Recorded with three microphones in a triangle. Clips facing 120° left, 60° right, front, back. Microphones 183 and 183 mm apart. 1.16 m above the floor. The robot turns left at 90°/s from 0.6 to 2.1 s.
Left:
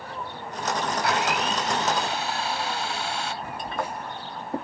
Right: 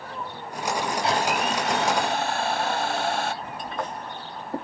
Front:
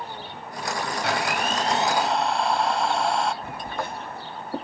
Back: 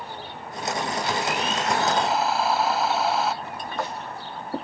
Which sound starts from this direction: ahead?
A blender, at 1.0 s.